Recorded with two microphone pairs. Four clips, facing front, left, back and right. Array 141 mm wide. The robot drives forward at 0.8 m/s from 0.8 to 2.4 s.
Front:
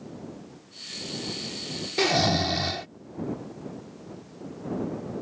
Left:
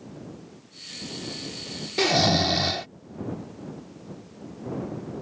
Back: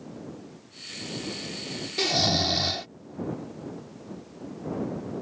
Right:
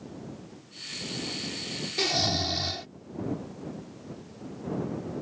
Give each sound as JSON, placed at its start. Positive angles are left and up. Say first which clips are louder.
{"t": 2.0, "sound": "snoring", "louder": "left 8 dB, front 3 dB", "azimuth_deg": 40}